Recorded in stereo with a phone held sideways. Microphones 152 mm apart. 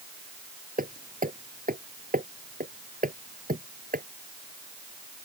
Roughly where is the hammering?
Right.